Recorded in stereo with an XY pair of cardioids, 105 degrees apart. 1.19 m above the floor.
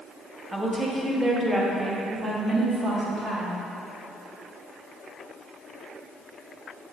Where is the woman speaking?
5° right, 1.6 m; by 3.6 s 50° right, 2 m.